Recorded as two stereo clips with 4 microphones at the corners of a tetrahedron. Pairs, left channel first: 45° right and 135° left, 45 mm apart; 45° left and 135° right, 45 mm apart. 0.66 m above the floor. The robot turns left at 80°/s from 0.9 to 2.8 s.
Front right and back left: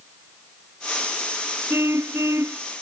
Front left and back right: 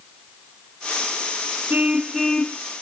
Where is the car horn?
170° left; by 2.6 s 100° left.